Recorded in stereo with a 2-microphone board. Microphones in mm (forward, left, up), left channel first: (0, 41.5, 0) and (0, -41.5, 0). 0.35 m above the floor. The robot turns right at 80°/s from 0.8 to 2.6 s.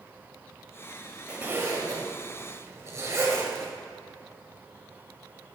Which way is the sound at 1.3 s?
15° right (ahead or behind).